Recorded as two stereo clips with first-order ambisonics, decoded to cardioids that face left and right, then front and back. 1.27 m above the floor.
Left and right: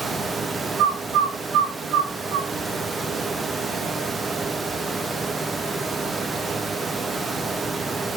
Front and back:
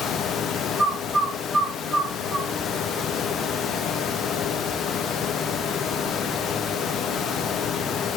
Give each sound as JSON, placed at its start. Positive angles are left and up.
{"t": 0.8, "sound": "a bird", "azimuth_deg": -100, "distance_m": 1.3}